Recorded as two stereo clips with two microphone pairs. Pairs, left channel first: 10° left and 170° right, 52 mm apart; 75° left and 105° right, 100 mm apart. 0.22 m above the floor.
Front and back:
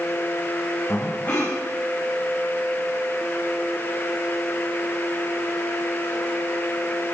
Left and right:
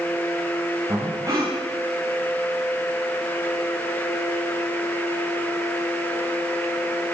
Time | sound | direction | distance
0.9 | breathing | 45° right | 8 m